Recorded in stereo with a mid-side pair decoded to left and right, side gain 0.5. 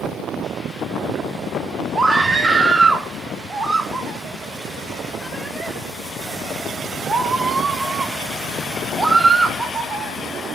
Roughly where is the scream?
Ahead right.